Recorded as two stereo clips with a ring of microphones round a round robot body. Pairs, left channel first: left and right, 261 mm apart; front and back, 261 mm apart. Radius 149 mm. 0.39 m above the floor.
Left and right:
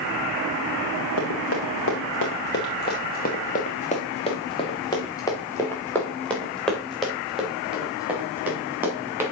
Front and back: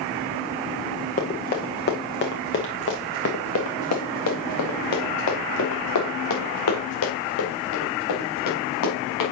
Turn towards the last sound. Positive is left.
turn(degrees=-10)